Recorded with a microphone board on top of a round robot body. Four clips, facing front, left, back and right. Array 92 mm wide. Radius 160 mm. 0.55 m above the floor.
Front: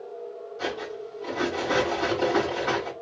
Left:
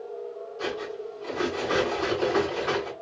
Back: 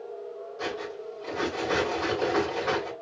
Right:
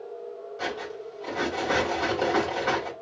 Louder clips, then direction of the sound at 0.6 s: Left 1 dB, front 2 dB; 95° right.